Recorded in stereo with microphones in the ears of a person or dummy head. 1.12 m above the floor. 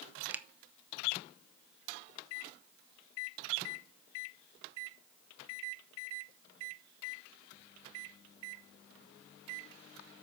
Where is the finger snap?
5° right (ahead or behind), 0.5 m.